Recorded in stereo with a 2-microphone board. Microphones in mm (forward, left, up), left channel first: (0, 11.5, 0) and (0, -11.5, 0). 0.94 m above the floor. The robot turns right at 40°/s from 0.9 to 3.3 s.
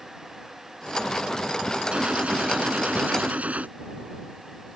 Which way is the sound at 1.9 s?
130° right.